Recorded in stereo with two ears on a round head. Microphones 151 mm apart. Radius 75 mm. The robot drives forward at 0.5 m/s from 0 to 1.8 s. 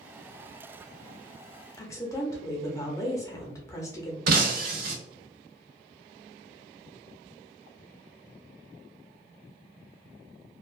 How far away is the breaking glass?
About 0.7 m.